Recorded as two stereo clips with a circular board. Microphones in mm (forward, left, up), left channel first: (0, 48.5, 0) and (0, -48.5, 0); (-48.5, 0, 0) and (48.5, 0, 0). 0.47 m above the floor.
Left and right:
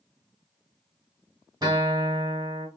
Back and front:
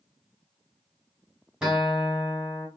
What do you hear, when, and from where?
1.6 s a guitar: 80° right, 1.4 m